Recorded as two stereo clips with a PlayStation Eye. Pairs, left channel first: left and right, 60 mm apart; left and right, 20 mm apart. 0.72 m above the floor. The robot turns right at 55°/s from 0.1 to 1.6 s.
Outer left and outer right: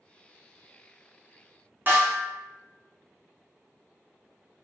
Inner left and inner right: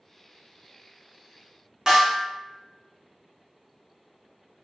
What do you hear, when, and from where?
1.9 s a snare drum: 35° right (ahead or behind), 1.0 m